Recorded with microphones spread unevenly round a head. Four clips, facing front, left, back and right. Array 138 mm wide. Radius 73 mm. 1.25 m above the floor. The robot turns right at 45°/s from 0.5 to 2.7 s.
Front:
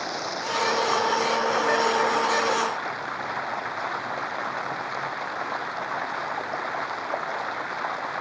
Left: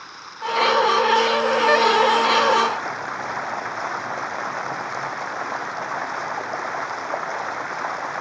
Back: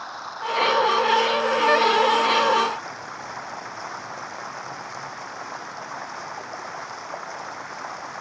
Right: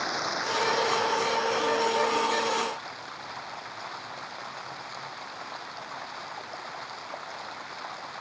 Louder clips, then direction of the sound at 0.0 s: Right 1 dB, front 2 dB; 45° right.